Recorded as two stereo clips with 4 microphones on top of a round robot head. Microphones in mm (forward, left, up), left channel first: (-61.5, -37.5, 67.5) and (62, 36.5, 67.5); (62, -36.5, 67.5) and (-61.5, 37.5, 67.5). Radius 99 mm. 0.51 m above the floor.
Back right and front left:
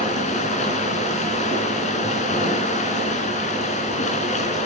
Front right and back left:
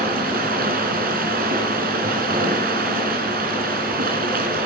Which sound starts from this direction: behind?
Running water, at 0.0 s.